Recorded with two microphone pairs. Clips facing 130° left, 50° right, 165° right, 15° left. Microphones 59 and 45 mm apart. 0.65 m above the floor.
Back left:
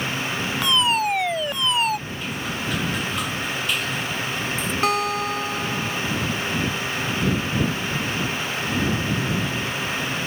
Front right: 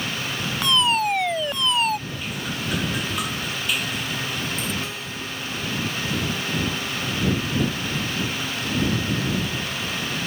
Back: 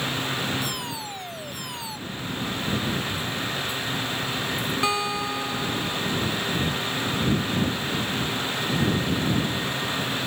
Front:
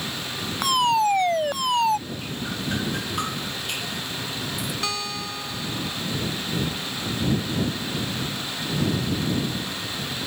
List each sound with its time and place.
0.6 s a fire alarm: 40° left
2.1 s dripping: 35° left
4.8 s a guitar: 125° left